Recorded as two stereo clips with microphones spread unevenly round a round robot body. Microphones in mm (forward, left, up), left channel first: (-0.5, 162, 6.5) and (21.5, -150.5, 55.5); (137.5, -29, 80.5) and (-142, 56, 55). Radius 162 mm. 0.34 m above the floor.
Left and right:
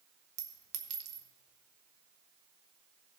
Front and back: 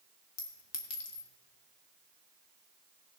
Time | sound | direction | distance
0.4 | a clink | 45° right | 1.4 m